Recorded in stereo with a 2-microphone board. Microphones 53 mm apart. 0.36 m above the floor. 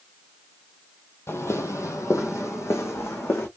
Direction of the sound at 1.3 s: 50° left (ahead or behind).